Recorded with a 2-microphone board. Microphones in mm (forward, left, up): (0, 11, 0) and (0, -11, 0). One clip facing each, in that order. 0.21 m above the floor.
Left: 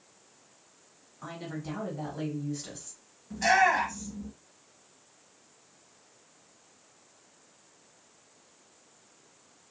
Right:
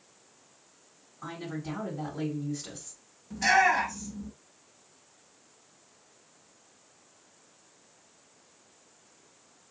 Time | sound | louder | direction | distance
1.2 | a woman speaking | right 1 dB | 15° left (ahead or behind) | 1.3 m
3.3 | a shout | even | 10° left (ahead or behind) | 1.3 m